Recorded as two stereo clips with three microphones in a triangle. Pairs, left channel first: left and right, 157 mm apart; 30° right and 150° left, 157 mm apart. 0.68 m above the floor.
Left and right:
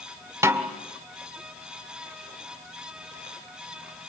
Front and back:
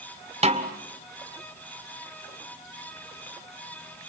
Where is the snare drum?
160° right, 2 m.